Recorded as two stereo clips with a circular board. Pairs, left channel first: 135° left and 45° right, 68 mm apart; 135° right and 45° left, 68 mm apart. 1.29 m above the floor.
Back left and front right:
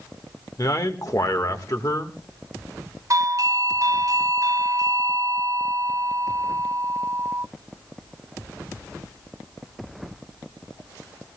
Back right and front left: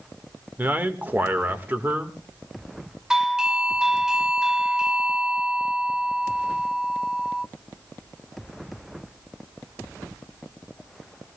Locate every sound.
0.6 s a man speaking: 105° left, 1.5 m
3.1 s a doorbell: 35° right, 0.5 m